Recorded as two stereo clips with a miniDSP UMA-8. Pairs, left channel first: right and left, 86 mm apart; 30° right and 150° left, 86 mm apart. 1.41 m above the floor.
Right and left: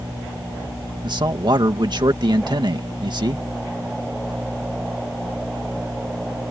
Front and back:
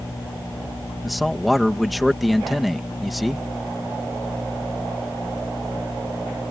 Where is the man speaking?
60° left.